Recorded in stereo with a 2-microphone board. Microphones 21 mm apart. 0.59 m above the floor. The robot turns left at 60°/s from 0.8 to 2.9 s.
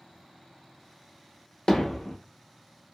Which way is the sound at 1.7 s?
40° left (ahead or behind).